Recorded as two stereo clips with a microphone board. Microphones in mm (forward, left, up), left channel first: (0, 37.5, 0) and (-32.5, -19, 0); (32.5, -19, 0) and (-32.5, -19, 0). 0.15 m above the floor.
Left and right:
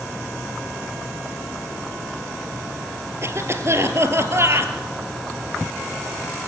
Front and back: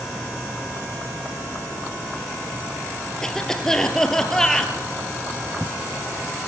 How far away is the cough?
About 3 m.